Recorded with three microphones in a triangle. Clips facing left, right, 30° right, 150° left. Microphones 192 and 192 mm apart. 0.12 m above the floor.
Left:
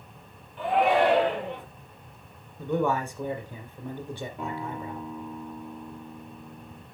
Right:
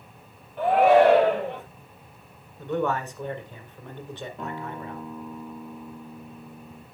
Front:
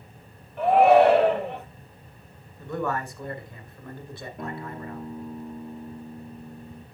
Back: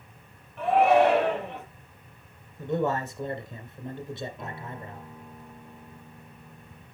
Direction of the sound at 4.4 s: 5° left.